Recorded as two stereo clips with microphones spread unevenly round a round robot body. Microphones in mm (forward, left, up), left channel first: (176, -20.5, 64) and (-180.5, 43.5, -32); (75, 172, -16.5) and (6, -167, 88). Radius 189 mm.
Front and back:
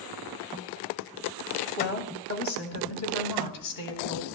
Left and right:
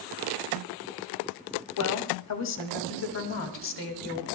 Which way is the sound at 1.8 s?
60° left.